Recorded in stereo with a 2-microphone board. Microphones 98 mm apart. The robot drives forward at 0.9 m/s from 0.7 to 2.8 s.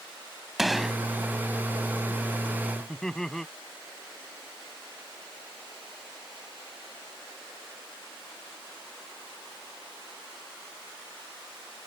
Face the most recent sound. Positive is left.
turn(degrees=5)  # may be behind; listen again after turning